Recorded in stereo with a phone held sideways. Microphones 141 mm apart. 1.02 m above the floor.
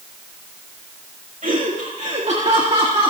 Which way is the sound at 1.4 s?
75° right (ahead or behind).